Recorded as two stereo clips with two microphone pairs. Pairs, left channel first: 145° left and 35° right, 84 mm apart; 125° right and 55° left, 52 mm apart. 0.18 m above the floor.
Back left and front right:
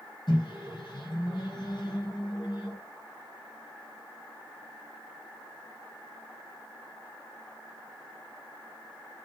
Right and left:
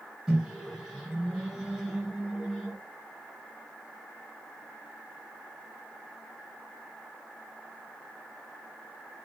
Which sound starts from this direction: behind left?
A microwave, at 0.3 s.